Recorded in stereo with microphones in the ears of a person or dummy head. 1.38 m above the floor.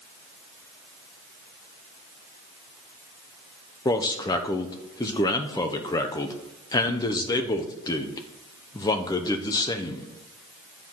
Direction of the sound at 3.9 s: 20° left (ahead or behind).